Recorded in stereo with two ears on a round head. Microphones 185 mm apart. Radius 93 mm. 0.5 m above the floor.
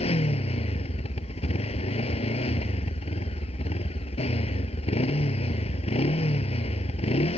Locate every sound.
0.0 s a motorcycle: 30° left (ahead or behind)